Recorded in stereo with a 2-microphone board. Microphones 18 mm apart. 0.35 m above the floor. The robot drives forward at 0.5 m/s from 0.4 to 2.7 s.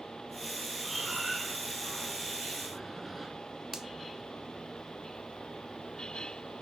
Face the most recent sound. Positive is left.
turn(degrees=-20)  # may be behind; listen again after turning